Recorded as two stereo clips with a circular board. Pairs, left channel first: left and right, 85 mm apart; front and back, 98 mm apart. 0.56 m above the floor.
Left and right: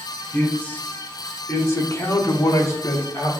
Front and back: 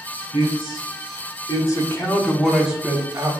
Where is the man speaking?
15° left, 1.8 m; by 3.3 s 130° left, 1.1 m.